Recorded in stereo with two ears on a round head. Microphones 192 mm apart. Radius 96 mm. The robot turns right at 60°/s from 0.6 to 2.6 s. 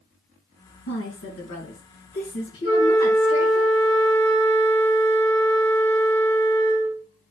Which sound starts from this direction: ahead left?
A woman speaking, at 0.9 s.